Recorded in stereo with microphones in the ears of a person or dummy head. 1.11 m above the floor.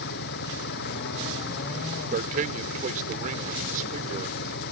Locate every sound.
0.0 s an engine running: 55° left (ahead or behind)
2.1 s a man speaking: 45° right (ahead or behind)